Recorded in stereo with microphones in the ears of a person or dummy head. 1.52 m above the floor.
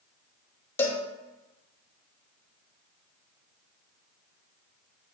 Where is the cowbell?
10° left (ahead or behind), 0.7 m.